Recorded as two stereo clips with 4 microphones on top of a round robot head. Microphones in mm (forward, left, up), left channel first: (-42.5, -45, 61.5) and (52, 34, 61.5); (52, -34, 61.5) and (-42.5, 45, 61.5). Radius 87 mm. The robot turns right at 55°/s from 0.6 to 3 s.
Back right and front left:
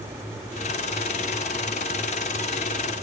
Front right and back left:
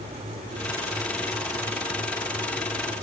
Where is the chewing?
I don't hear chewing.